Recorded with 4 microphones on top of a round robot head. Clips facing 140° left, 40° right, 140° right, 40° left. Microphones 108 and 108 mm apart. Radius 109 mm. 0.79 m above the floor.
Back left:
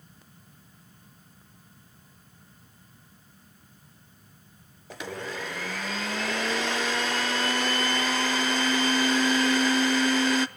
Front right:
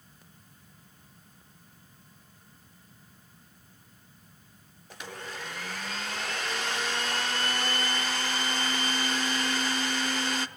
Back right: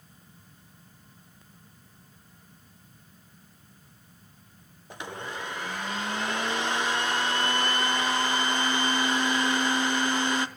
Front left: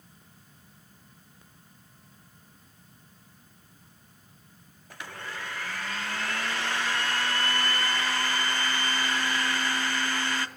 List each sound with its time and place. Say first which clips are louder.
4.9 s a blender: back left 6 dB, back right 3 dB; 150° left, 0.6 m